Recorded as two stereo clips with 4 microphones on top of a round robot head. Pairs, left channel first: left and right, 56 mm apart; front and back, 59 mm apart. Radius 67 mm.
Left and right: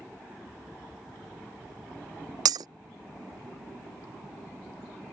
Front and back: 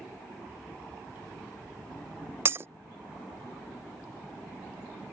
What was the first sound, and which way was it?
Breaking glass, 115° right.